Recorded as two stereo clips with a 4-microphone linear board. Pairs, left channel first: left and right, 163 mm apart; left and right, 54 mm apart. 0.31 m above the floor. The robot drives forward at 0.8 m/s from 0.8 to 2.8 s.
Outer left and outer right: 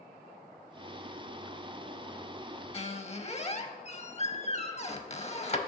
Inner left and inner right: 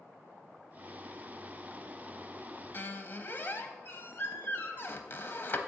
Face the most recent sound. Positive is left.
turn(degrees=40)  # may be behind; listen again after turning